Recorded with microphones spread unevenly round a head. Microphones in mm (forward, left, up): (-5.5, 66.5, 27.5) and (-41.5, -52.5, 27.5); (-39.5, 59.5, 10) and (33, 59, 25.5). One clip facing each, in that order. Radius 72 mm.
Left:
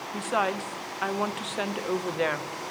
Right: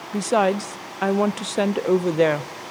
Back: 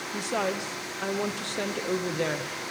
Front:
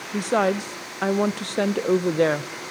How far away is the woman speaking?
About 0.6 m.